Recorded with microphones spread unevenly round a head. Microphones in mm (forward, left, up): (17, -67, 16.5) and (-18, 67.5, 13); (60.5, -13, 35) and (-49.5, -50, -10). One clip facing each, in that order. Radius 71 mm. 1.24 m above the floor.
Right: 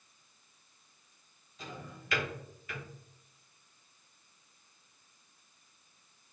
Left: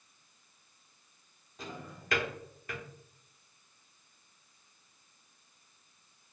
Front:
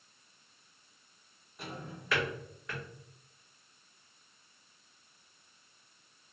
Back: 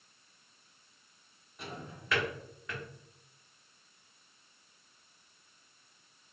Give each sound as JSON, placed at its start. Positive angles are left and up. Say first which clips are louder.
{"t": 1.6, "sound": "a drawer", "louder": "left 1 dB, front 1 dB", "azimuth_deg": 75, "distance_m": 0.9}